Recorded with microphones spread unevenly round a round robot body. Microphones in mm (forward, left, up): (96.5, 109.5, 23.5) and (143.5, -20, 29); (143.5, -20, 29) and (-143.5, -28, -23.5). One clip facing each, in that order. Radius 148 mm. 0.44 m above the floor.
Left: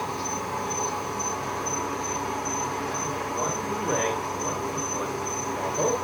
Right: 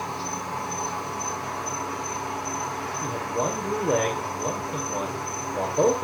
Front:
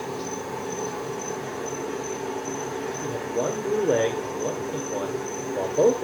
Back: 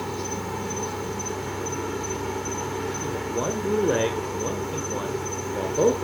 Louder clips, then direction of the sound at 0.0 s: Left 1 dB, even; 165° left.